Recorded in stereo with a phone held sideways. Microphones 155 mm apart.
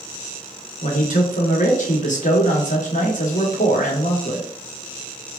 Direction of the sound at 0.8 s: 55° left (ahead or behind).